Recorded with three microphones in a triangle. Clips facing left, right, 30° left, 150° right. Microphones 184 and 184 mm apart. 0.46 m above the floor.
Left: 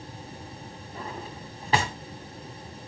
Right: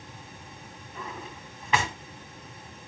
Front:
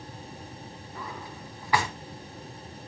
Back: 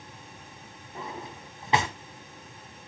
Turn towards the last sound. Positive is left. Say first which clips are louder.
# left 2 dB, back 2 dB
turn(degrees=145)